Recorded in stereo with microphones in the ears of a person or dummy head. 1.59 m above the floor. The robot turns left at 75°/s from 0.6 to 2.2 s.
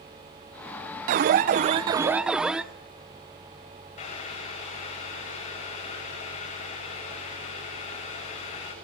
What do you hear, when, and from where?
1.1 s an alarm: 85° right, 0.7 m; by 2.6 s 165° right, 0.7 m
4.0 s boiling: 35° left (ahead or behind), 8 m